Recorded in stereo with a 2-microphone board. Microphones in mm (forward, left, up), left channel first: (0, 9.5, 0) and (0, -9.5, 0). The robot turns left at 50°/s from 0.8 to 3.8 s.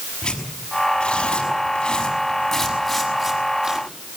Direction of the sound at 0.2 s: 75° left (ahead or behind).